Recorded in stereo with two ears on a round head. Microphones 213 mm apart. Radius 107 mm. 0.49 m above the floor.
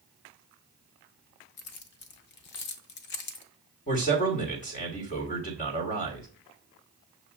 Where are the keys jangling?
45° left (ahead or behind), 0.6 m.